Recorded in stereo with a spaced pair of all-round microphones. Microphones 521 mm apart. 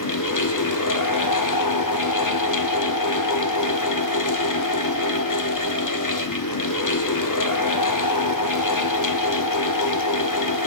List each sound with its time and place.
0.0 s a fan: 35° left (ahead or behind), 0.8 m